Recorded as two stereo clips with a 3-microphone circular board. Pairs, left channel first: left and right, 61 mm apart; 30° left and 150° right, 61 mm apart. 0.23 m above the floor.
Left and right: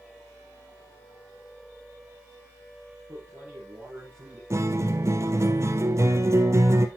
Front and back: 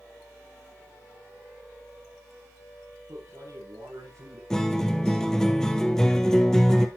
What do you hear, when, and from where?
3.1 s a man speaking: 145° right, 8.5 m
4.5 s a guitar: 50° right, 1.5 m